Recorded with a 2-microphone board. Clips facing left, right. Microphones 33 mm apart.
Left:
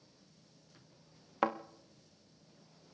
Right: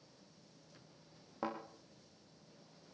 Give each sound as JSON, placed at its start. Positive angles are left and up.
{"t": 1.4, "sound": "a thud", "side_deg": 80, "distance_m": 1.9}